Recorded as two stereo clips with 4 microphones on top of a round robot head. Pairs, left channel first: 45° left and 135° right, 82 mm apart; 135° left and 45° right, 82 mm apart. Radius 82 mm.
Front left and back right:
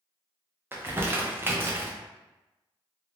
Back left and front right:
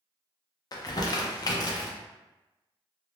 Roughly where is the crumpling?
Behind.